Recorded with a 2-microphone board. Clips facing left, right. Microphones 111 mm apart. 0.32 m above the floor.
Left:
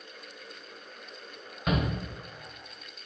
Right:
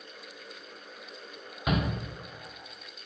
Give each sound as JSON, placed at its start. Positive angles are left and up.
{"t": 1.7, "sound": "a shout", "side_deg": -10, "distance_m": 1.7}